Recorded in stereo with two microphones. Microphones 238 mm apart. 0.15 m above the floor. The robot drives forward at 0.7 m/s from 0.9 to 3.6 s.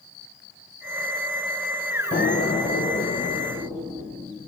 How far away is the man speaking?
I don't hear a man speaking.